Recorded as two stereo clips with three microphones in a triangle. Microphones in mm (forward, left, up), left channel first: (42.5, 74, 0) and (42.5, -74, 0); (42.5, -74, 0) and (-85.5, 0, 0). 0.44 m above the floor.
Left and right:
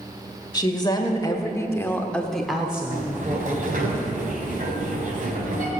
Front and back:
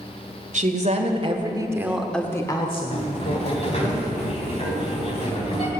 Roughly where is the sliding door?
Right.